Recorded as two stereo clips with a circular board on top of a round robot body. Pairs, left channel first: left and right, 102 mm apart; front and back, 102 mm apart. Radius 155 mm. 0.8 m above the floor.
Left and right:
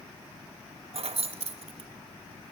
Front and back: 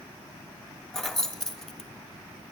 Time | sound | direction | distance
0.9 | keys jangling | 85° right | 1.1 m